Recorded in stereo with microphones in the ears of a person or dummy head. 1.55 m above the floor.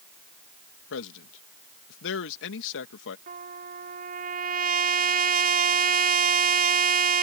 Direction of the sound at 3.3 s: 40° right (ahead or behind).